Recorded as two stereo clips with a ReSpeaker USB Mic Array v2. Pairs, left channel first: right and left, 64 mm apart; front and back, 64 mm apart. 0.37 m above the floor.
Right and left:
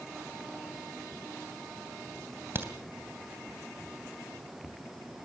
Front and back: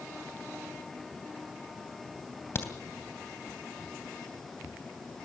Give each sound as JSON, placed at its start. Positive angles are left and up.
{"t": 2.5, "sound": "a crack", "azimuth_deg": 45, "distance_m": 2.5}